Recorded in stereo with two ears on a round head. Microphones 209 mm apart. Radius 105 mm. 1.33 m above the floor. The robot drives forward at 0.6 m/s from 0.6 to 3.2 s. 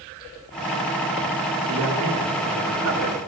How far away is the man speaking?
About 4 m.